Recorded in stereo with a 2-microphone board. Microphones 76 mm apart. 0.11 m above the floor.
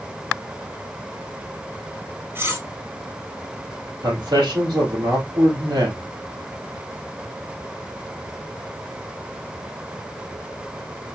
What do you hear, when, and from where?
2.4 s cutlery clinking: 35° right (ahead or behind), 1.4 m
4.0 s a man speaking: 65° right (ahead or behind), 3 m